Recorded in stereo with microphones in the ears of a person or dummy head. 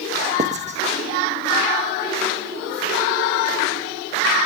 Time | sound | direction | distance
0.4 | writing | 30° right (ahead or behind) | 0.9 m